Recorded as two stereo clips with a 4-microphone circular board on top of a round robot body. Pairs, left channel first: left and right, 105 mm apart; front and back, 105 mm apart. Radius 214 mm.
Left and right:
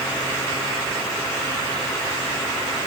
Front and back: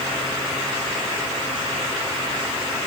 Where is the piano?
No piano in this recording.